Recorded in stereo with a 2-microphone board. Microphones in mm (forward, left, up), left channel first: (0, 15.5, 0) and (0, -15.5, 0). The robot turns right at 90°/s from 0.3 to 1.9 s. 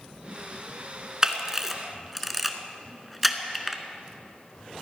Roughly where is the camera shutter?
Right.